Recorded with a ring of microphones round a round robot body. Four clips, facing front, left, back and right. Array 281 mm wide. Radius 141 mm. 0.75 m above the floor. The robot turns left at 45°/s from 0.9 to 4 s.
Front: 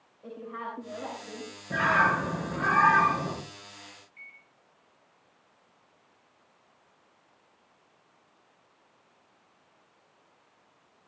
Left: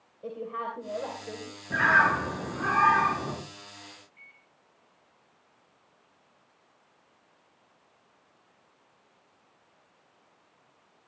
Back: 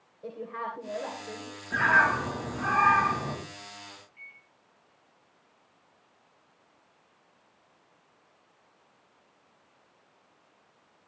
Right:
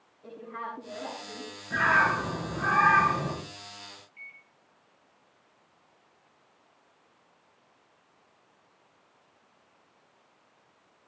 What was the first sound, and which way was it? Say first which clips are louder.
A woman speaking: left 4 dB, back 2 dB; 125° left.